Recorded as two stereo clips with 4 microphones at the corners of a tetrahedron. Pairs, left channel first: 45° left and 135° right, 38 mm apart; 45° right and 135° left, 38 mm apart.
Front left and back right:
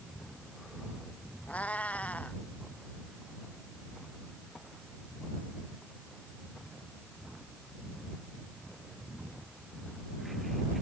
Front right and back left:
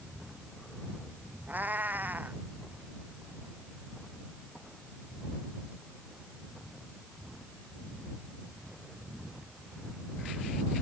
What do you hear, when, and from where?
1.5 s a cat meowing: 95° left